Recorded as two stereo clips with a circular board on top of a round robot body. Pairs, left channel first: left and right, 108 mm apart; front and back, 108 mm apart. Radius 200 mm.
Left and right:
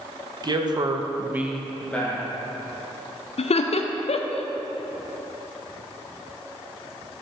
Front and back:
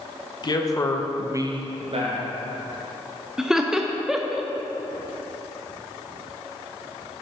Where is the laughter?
95° left, 0.5 m.